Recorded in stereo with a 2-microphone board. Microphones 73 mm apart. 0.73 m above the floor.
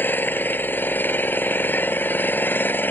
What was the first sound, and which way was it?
An engine running, 30° left (ahead or behind).